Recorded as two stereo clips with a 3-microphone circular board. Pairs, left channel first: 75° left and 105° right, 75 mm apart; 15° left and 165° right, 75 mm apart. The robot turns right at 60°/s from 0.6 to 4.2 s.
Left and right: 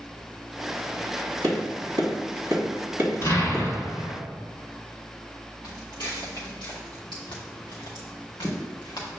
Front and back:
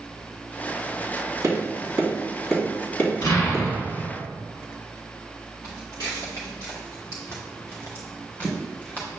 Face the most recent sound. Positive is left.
turn(degrees=80)